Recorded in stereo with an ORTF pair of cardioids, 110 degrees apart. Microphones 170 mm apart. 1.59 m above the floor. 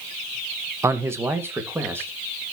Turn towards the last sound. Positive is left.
turn(degrees=-15)